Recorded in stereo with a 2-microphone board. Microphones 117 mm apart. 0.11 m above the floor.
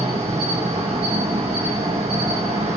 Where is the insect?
65° right (ahead or behind), 1.2 m.